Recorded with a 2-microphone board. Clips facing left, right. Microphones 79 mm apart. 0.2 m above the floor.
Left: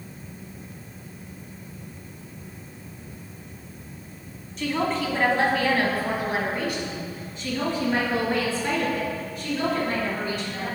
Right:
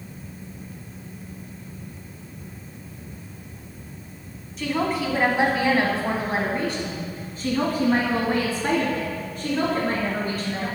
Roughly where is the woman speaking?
Centre.